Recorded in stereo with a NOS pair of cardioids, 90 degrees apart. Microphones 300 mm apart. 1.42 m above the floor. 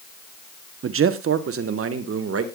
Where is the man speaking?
45° right, 1.1 m; by 2.4 s 50° right, 2 m.